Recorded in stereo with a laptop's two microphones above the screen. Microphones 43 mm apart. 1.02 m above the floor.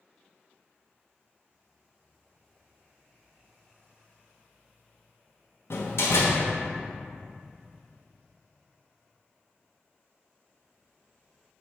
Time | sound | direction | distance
5.7 | a door slam | 70° left (ahead or behind) | 0.9 m